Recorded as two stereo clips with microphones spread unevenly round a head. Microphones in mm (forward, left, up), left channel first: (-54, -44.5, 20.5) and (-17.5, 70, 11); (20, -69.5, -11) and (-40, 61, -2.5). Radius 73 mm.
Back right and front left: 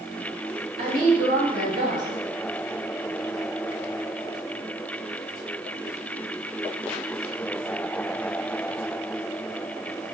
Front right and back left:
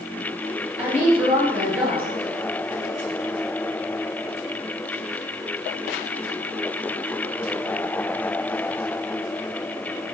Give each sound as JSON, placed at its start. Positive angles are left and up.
{"t": 0.8, "sound": "a woman speaking", "azimuth_deg": 35, "distance_m": 1.7}